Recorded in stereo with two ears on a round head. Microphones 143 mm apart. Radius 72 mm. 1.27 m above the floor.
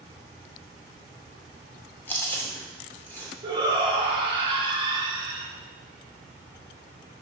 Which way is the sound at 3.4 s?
30° right (ahead or behind).